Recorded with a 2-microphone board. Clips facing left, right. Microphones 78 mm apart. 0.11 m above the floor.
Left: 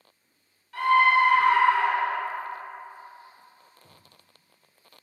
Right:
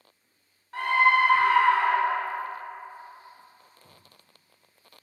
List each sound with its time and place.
0.7 s a scream: 30° right (ahead or behind), 1.2 m; by 2.2 s 5° left (ahead or behind), 1.9 m